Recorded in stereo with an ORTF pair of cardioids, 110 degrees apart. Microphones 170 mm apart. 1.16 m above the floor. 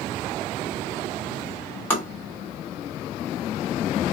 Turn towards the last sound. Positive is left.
turn(degrees=10)